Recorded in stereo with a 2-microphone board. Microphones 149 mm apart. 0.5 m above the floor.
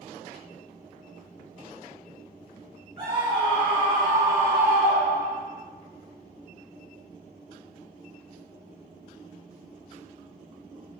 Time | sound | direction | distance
3.0 | a scream | 35° right (ahead or behind) | 1.3 m